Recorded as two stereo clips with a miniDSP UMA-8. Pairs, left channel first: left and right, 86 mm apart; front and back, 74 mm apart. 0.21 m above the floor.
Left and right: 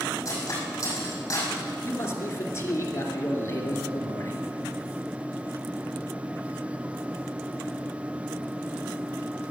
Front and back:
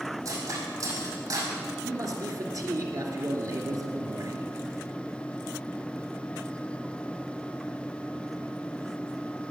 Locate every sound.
0.2 s cutlery clinking: 145° left, 5 m
1.8 s a man speaking: 145° left, 2.5 m